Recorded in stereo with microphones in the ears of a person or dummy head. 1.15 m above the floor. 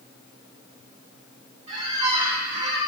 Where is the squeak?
30° right (ahead or behind), 0.7 m.